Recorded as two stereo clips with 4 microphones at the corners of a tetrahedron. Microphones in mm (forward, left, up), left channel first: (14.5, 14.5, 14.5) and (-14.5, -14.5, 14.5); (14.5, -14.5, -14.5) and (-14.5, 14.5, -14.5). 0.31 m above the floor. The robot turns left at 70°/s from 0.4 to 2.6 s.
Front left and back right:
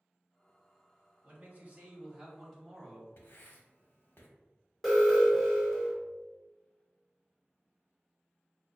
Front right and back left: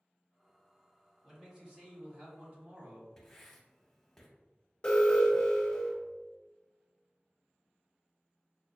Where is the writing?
35° left, 0.7 m.